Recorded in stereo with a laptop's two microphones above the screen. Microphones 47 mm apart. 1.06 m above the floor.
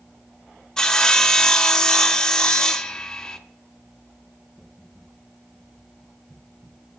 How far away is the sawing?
About 0.6 m.